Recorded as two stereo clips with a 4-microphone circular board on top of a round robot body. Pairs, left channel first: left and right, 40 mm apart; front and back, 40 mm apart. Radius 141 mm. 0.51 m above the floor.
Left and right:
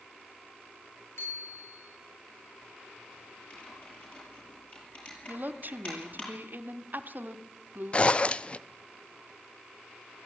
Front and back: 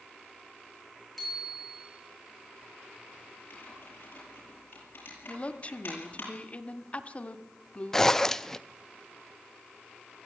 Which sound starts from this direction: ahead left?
Typing on a keyboard, at 3.5 s.